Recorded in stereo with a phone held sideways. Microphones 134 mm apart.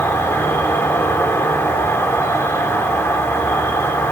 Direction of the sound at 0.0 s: 20° left (ahead or behind).